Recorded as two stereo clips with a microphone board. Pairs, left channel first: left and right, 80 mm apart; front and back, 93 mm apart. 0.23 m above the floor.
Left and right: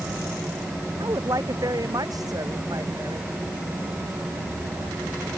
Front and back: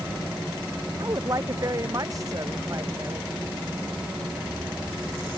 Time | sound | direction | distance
1.0 | a woman speaking | 130° right | ?